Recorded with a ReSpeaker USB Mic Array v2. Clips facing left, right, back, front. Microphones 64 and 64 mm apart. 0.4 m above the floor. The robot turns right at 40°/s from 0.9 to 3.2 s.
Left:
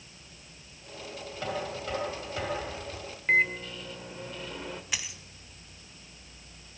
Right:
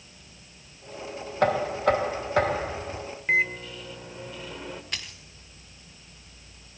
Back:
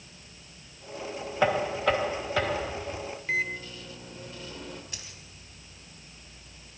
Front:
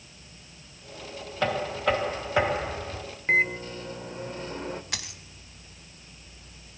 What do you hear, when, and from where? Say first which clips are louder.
1.4 s knocking: right 12 dB, back 1 dB; 105° right, 2 m; by 3.0 s 40° right, 2 m
3.3 s a microwave: even, front 7 dB; 5° right, 1.3 m
4.9 s a dropped coin: even, front 7 dB; 10° left, 1.3 m